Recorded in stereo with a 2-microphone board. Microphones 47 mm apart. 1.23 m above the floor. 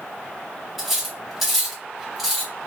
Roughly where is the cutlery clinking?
Centre.